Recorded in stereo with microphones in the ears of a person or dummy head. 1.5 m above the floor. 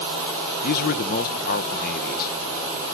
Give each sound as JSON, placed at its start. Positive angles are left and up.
{"t": 0.6, "sound": "a man speaking", "side_deg": 50, "distance_m": 0.8}